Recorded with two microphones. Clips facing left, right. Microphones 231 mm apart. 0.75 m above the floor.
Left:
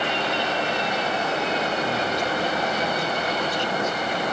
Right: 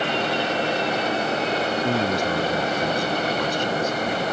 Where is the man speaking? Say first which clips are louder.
Right 3 dB; 50° right (ahead or behind).